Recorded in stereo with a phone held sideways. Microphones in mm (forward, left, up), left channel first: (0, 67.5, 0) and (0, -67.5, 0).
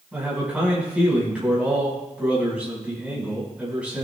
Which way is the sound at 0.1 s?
10° right (ahead or behind).